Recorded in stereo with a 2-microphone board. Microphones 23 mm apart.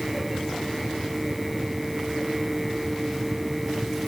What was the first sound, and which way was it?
Only background noise.